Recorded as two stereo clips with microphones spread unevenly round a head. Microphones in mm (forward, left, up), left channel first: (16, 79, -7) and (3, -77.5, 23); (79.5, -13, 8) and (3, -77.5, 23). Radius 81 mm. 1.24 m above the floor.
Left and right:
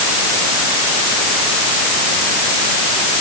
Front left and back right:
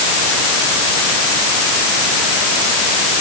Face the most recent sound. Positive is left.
No sound to turn to.